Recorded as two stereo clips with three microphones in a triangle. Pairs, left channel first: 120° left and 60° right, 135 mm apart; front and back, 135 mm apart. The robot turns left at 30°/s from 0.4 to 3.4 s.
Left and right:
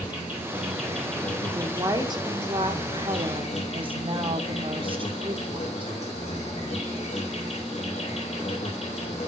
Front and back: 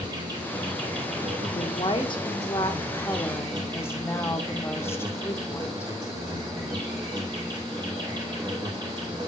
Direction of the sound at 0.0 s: 135° right.